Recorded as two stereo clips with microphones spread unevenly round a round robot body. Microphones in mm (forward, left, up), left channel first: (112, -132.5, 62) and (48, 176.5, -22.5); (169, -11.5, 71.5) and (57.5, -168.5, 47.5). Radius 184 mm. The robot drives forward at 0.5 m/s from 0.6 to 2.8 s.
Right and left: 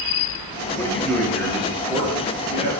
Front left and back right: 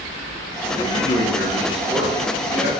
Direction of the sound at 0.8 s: 30° left.